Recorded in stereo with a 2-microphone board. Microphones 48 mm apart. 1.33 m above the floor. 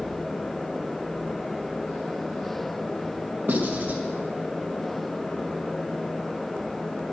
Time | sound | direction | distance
3.5 | writing | 40° right (ahead or behind) | 1.4 m